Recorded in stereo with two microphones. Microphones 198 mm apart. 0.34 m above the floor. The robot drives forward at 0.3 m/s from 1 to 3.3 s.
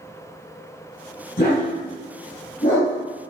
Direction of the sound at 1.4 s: 50° left (ahead or behind).